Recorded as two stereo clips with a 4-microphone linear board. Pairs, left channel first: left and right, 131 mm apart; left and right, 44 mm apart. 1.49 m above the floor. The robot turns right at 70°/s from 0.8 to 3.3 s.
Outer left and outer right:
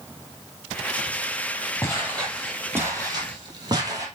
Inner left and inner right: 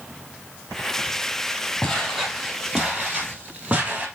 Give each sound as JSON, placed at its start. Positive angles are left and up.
{"t": 1.8, "sound": "footsteps", "side_deg": 25, "distance_m": 2.5}